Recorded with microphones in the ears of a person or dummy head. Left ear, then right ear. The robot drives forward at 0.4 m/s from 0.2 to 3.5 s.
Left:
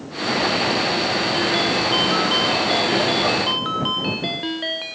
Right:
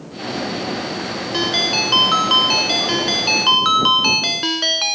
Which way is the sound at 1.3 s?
50° right (ahead or behind).